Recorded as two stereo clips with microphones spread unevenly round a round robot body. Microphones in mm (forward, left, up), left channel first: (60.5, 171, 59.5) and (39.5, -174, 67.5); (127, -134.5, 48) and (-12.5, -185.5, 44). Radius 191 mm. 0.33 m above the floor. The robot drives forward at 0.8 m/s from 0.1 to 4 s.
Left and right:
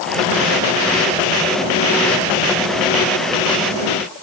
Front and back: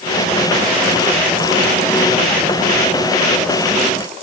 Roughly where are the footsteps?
I don't hear footsteps.